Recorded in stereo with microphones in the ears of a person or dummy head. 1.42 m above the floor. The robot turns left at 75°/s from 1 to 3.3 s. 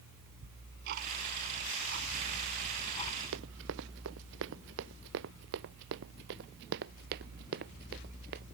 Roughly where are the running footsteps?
Right.